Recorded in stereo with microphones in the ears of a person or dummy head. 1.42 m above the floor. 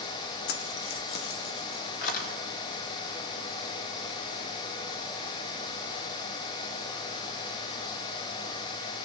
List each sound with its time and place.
0.5 s keys jangling: 60° left (ahead or behind), 1.3 m; by 2.3 s 50° left (ahead or behind), 3 m